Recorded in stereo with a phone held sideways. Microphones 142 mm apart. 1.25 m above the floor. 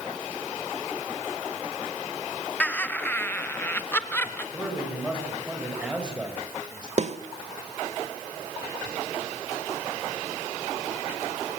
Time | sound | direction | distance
2.6 | laughter | 10° left (ahead or behind) | 0.9 m
4.5 | a man speaking | 5° right (ahead or behind) | 8 m
7.0 | a snare drum | 50° right (ahead or behind) | 1.5 m